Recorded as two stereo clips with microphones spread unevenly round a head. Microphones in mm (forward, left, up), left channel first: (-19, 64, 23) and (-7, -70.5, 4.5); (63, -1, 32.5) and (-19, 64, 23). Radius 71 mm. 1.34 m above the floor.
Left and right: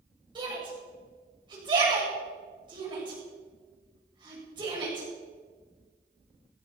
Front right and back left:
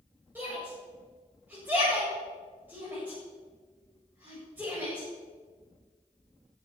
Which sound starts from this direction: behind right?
A shout, at 0.3 s.